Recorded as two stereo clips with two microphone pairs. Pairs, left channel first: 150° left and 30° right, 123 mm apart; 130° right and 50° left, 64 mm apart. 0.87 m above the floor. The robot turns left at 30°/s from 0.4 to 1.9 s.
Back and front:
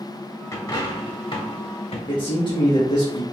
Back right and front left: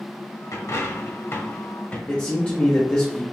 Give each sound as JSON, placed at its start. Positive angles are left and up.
{"t": 0.5, "sound": "a dropped coin", "azimuth_deg": -150, "distance_m": 1.1}
{"t": 2.1, "sound": "a man speaking", "azimuth_deg": 170, "distance_m": 0.9}